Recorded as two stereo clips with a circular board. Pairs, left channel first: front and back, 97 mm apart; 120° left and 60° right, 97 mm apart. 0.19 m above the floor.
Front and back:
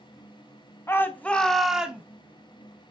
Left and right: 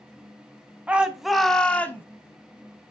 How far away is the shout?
About 1.1 m.